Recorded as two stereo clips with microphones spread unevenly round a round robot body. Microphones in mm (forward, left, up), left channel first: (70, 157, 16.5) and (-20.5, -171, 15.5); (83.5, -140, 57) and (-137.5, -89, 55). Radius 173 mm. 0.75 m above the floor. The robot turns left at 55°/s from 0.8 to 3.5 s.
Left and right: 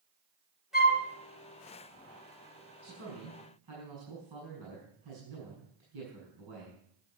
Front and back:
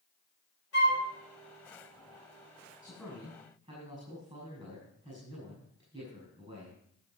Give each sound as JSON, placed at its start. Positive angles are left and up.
{"t": 0.7, "sound": "a flute", "azimuth_deg": -15, "distance_m": 3.5}
{"t": 2.8, "sound": "a man speaking", "azimuth_deg": -95, "distance_m": 6.0}